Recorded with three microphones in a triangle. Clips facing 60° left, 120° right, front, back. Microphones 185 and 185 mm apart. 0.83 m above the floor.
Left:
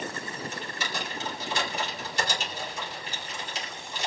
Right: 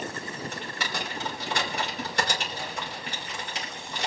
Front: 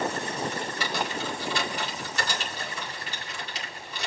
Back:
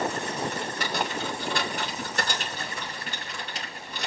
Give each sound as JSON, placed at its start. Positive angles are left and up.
{"t": 0.5, "sound": "typing on a keyboard", "azimuth_deg": -145, "distance_m": 4.0}